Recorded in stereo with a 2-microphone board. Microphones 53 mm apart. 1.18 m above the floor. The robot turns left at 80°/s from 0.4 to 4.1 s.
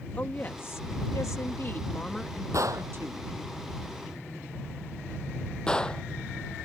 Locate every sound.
0.2 s a woman speaking: 150° left; by 3.3 s 85° right
2.5 s a gunshot: 70° right (ahead or behind); by 6.0 s 15° left (ahead or behind)